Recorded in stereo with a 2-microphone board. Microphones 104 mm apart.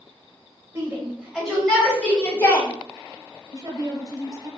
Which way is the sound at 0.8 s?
25° right (ahead or behind).